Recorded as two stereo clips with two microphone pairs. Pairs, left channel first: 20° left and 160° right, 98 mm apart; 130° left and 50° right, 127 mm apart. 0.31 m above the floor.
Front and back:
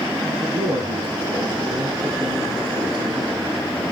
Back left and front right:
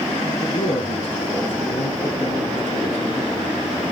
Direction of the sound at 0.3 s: 175° left.